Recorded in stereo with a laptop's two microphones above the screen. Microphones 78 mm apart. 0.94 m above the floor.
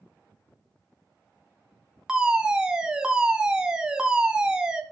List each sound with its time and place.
2.1 s a fire alarm: 10° right (ahead or behind), 1.4 m